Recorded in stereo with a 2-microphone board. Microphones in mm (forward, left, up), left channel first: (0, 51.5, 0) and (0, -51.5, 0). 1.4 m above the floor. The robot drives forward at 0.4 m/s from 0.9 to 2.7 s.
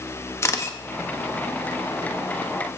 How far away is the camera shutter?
About 0.9 m.